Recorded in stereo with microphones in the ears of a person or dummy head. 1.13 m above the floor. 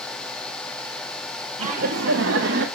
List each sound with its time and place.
1.6 s laughter: 40° right (ahead or behind), 1.1 m; by 2.7 s 60° right (ahead or behind), 1.2 m